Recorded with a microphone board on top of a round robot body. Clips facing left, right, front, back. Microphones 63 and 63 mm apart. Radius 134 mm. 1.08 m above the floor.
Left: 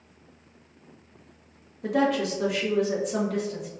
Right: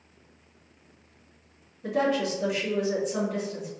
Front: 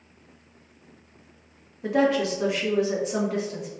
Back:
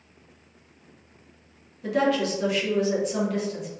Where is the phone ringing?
I don't hear a phone ringing.